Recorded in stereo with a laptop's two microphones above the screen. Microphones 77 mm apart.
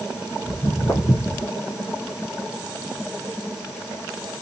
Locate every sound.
0.5 s footsteps: 30° left (ahead or behind), 2.5 m; by 1.5 s 45° left (ahead or behind), 2 m